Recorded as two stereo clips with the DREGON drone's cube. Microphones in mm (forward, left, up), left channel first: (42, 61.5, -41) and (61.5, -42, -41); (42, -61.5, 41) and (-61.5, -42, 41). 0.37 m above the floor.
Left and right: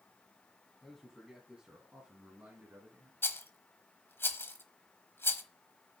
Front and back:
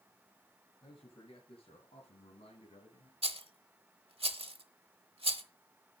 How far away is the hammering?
No hammering in this recording.